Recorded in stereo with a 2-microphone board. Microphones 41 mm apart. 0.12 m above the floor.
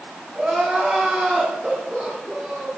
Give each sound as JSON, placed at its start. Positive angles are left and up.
{"t": 0.3, "sound": "crying", "side_deg": -25, "distance_m": 6.5}